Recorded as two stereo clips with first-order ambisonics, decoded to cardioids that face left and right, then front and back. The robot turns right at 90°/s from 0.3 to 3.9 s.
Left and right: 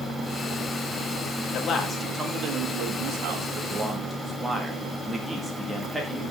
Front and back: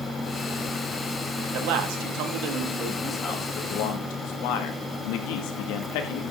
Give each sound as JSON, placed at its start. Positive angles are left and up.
{"t": 1.5, "sound": "a man speaking", "azimuth_deg": 140, "distance_m": 1.9}